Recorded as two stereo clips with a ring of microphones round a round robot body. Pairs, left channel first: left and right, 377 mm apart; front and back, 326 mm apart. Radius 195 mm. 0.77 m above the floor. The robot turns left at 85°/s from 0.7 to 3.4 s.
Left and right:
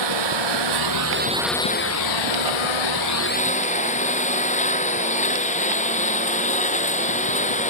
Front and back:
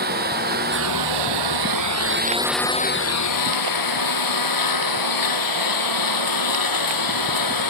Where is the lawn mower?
115° right; by 7.7 s 20° left.